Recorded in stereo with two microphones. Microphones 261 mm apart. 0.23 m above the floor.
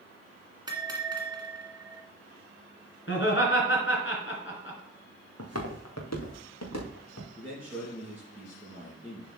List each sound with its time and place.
0.7 s a bell: 15° right (ahead or behind), 1.7 m
3.1 s laughter: 50° left (ahead or behind), 2.5 m
5.4 s footsteps: 65° left (ahead or behind), 2.0 m; by 7.3 s 80° left, 3.5 m
7.4 s a man speaking: 10° left (ahead or behind), 3 m